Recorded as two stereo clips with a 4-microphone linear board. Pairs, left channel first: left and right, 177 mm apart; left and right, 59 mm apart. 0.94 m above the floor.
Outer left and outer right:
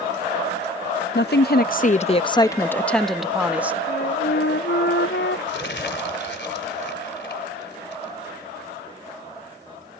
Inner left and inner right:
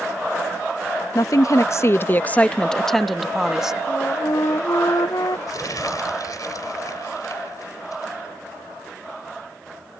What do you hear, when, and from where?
1.1 s a woman speaking: 65° left (ahead or behind); by 3.8 s 10° right (ahead or behind)
3.9 s a flute: 75° left (ahead or behind)
5.5 s crumpling: 75° left (ahead or behind)